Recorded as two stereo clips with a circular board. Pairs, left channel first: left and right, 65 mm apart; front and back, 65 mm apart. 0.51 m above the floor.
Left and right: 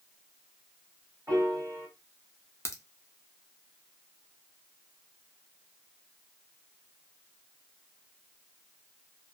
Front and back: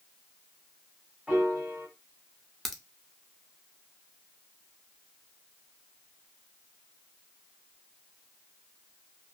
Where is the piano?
110° right, 1.9 m.